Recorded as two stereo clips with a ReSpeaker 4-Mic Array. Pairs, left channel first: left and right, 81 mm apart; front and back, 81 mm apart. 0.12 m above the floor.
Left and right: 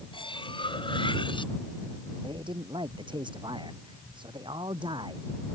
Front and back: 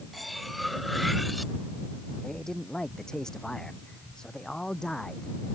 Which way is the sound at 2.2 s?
80° right.